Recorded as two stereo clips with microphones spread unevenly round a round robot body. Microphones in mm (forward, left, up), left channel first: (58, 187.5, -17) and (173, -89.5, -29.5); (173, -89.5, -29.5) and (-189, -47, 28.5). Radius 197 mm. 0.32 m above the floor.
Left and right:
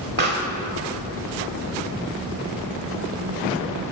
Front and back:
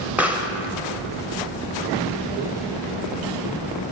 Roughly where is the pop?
Right.